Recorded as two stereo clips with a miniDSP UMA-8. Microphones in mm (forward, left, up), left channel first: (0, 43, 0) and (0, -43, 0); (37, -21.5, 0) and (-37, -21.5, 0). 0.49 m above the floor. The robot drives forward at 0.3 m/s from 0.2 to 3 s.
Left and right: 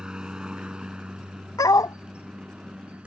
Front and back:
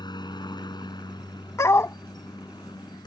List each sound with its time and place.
0.0 s a helicopter: 10° right; by 3.1 s 15° right
1.6 s a dog barking: 45° left; by 2.0 s 50° left